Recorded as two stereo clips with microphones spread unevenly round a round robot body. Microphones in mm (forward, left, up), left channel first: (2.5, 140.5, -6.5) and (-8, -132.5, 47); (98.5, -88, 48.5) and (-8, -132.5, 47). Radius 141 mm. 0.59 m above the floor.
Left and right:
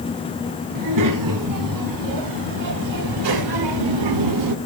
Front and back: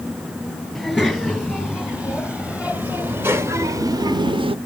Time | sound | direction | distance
0.8 | a child speaking | 70° right | 3.5 m